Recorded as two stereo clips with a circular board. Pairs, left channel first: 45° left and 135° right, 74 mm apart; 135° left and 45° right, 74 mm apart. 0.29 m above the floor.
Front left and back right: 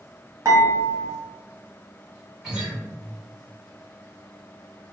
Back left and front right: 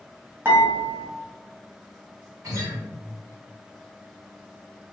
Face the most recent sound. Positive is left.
turn(degrees=-60)